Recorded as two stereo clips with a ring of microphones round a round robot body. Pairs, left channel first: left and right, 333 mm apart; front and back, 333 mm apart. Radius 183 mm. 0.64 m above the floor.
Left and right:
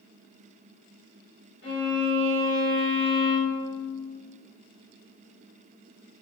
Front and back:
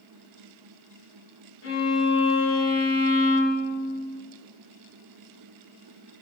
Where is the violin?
40° left, 1.5 m.